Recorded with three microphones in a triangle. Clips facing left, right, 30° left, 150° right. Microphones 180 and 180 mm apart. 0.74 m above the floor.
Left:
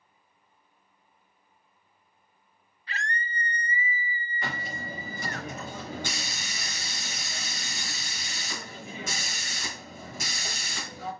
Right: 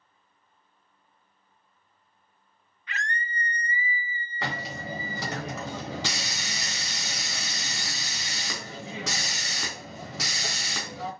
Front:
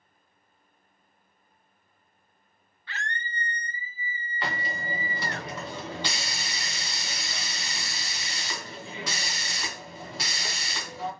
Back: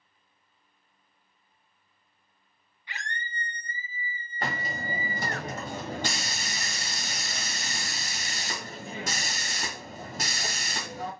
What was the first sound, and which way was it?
A scream, 140° left.